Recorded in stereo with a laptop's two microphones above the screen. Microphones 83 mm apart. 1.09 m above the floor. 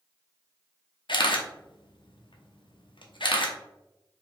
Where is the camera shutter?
75° left (ahead or behind), 0.8 m.